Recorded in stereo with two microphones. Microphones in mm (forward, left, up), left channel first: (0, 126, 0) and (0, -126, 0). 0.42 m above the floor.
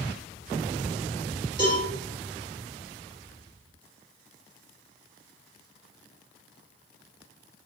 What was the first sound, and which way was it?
A cowbell, 35° left (ahead or behind).